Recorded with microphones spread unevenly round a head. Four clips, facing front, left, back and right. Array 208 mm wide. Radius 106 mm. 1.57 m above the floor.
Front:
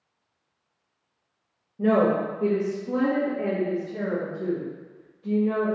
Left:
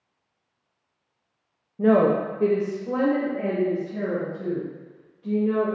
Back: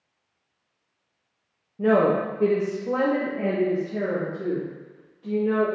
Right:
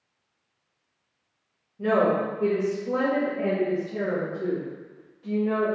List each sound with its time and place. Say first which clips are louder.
1.8 s a woman speaking: left 3 dB, back 1 dB; 105° left, 0.5 m; by 5.7 s 155° right, 2.5 m